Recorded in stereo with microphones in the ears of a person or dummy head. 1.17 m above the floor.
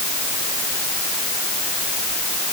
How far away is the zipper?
No zipper in this recording.